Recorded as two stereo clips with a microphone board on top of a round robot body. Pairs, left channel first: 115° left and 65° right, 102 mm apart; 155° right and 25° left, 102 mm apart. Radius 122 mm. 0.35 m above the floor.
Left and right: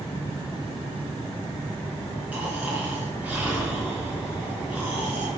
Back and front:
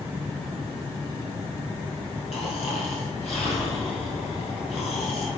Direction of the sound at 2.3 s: 145° right.